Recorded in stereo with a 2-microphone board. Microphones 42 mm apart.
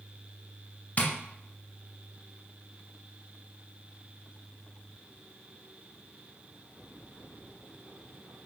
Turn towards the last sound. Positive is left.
turn(degrees=35)  # may be behind; listen again after turning